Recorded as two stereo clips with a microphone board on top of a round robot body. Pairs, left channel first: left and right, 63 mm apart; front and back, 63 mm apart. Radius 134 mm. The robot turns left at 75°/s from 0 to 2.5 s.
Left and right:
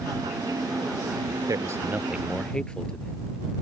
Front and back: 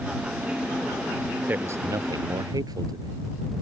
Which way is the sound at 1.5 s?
115° right.